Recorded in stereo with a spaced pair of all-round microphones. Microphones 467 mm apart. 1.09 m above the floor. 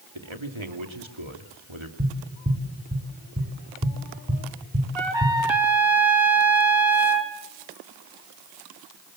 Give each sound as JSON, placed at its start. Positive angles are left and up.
{"t": 0.1, "sound": "a man speaking", "side_deg": -80, "distance_m": 2.5}
{"t": 2.0, "sound": "tapping", "side_deg": -20, "distance_m": 3.0}
{"t": 5.0, "sound": "a trumpet", "side_deg": -70, "distance_m": 2.5}